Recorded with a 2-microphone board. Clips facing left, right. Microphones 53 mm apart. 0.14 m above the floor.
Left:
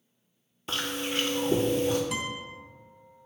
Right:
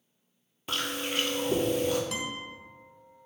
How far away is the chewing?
About 0.9 m.